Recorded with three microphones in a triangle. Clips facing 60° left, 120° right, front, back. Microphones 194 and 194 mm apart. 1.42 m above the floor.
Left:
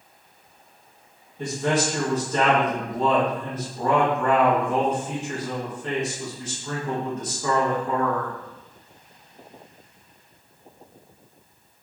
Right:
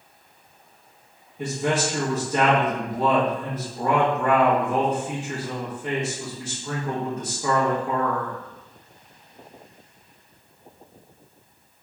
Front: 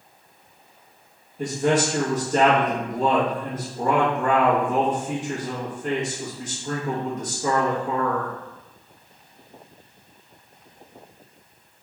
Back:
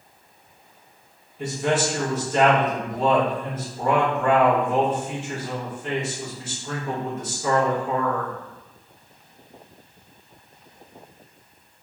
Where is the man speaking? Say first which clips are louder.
Left 1 dB, front 2 dB; 45° right, 1.2 m.